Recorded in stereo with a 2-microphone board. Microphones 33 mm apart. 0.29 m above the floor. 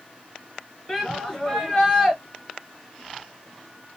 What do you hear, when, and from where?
0.9 s a shout: 15° left (ahead or behind), 1.1 m